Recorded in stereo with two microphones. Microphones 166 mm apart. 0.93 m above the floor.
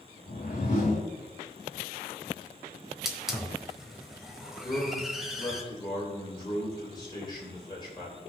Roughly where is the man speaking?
Left.